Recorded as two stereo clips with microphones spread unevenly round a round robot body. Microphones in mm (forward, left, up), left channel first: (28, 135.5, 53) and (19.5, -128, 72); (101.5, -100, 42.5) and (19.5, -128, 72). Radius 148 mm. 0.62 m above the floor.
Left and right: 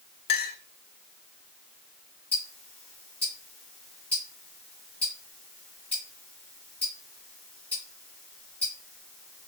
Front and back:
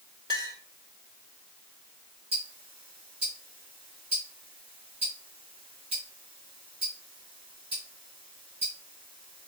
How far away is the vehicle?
No vehicle in this recording.